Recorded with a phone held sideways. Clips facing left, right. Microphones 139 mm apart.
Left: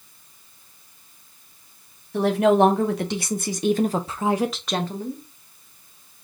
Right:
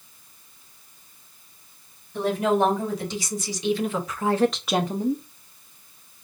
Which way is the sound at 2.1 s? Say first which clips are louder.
Left 5 dB; 75° left (ahead or behind).